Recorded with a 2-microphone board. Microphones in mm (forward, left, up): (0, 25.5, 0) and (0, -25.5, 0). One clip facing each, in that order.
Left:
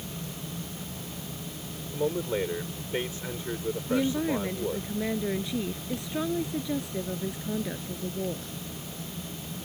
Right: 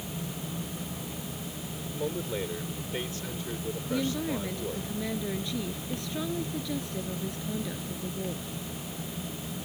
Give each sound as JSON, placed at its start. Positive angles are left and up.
{"t": 1.9, "sound": "a man speaking", "side_deg": 20}
{"t": 3.9, "sound": "a woman speaking", "side_deg": 20}